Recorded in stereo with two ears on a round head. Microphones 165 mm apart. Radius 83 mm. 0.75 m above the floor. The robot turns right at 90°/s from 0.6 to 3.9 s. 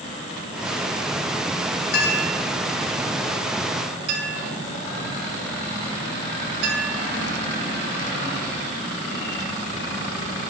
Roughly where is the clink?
Left.